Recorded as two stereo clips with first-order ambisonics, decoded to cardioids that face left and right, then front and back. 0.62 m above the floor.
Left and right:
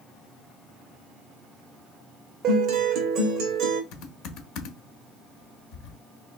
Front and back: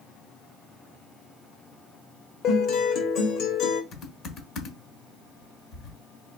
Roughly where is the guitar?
Ahead right.